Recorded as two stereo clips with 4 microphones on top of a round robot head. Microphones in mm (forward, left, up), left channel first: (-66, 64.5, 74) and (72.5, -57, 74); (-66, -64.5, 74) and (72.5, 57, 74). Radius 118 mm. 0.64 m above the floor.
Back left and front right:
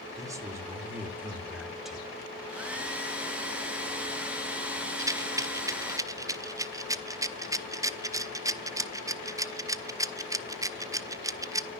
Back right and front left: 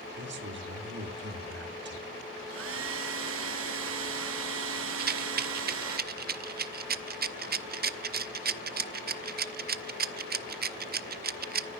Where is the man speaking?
30° left, 2.5 m; by 2.1 s 50° left, 1.9 m.